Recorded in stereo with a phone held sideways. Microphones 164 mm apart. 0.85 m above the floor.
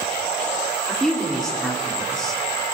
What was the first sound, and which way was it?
A woman speaking, 5° left (ahead or behind).